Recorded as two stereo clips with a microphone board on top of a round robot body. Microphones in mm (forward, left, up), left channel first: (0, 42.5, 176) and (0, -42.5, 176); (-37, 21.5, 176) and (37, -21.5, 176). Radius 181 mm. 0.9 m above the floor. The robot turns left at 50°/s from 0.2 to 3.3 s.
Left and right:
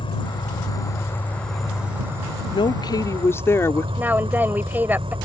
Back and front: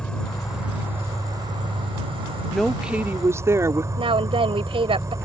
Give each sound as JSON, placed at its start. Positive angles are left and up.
{"t": 0.0, "sound": "an insect", "azimuth_deg": 70}
{"t": 2.5, "sound": "a woman speaking", "azimuth_deg": 65}
{"t": 4.0, "sound": "a woman speaking", "azimuth_deg": -20}